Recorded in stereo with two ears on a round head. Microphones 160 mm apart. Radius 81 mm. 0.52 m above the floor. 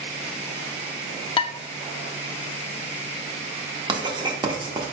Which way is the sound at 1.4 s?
30° left (ahead or behind).